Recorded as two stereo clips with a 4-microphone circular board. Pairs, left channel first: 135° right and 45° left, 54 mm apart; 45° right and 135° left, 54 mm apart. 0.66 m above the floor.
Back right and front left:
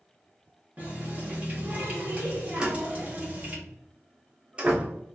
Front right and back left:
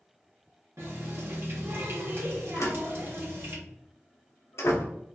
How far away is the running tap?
About 1.2 m.